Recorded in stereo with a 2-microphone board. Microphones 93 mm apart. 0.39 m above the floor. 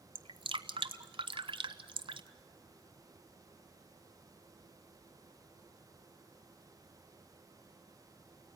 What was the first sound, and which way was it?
Dripping, 70° right (ahead or behind).